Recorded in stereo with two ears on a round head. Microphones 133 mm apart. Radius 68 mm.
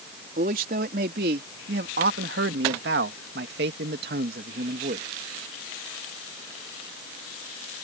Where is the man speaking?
55° right (ahead or behind); by 5.0 s 65° right (ahead or behind).